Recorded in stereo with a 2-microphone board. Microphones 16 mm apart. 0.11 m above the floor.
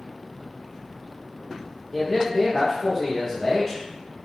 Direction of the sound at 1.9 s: 25° left (ahead or behind).